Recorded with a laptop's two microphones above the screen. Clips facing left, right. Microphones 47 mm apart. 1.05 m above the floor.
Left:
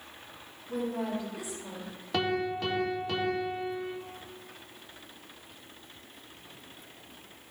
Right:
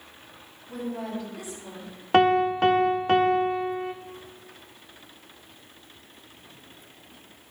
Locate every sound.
0.7 s a woman speaking: 10° left (ahead or behind), 2.5 m
2.1 s a piano: 45° right (ahead or behind), 0.5 m